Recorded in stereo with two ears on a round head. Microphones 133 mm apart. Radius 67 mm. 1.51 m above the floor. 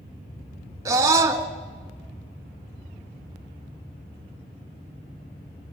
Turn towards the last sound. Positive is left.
turn(degrees=-20)  # may be behind; listen again after turning